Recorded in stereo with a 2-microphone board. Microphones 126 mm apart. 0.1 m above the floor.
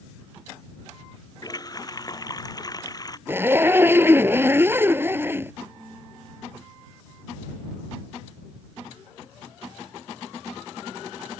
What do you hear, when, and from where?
1.4 s a running tap: 30° left (ahead or behind)
3.3 s a zipper: 20° right (ahead or behind)